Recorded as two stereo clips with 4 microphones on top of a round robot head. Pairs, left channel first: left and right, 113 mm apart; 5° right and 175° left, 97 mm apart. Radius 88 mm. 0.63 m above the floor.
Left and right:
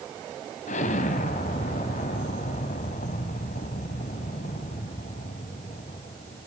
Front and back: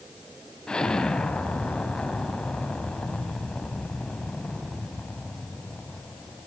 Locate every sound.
0.7 s an explosion: 75° left, 1.8 m